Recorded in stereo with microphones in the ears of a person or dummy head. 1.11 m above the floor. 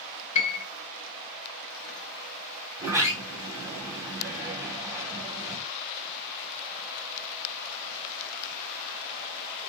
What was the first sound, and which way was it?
A piano, 40° left (ahead or behind).